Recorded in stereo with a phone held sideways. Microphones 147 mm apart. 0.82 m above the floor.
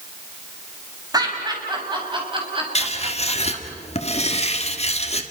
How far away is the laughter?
About 5.5 m.